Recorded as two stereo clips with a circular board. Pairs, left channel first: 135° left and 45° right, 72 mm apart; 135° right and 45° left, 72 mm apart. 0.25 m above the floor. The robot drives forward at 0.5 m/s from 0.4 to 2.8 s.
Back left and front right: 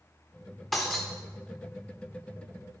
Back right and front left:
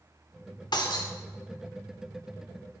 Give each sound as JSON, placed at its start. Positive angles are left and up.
{"t": 0.7, "sound": "breaking glass", "azimuth_deg": -135, "distance_m": 3.0}